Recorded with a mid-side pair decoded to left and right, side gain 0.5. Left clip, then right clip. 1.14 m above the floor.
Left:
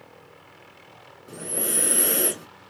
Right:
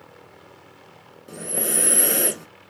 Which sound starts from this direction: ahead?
Breathing, at 1.3 s.